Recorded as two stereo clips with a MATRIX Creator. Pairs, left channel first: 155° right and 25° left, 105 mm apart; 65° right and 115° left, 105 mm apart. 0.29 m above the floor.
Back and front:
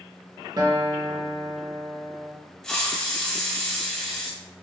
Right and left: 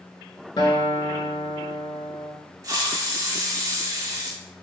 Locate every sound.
0.6 s a guitar: 25° right, 0.6 m
2.6 s a hiss: 120° left, 0.5 m